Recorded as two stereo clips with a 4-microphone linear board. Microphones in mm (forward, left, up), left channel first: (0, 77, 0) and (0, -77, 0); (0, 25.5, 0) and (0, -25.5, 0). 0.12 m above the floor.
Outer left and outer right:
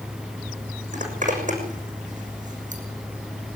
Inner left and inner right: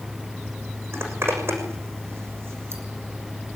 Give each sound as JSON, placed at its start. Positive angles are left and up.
{"t": 0.9, "sound": "a zipper", "side_deg": -55, "distance_m": 6.5}